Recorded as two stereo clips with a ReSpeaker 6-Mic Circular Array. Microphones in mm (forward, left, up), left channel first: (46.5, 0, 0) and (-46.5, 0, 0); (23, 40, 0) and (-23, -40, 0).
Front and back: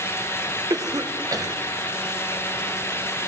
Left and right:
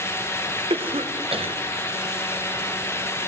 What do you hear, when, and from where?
0.7 s a cough: 125° right, 1.0 m